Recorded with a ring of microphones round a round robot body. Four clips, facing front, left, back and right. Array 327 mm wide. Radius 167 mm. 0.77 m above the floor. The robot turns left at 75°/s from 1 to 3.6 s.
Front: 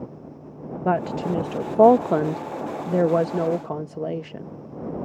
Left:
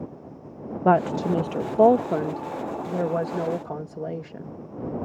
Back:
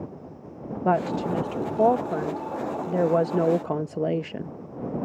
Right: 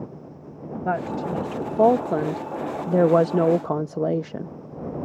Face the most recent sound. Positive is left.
turn(degrees=-115)